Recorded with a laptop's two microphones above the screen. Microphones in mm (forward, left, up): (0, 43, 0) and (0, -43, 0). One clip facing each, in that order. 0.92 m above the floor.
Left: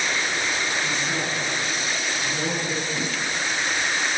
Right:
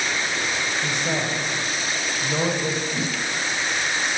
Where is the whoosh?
30° right (ahead or behind), 5 m.